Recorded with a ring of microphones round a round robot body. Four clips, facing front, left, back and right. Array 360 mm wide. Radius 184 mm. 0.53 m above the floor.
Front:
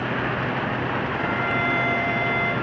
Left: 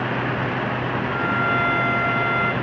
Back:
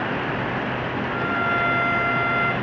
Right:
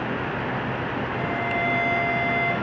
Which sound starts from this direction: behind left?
A violin, at 1.1 s.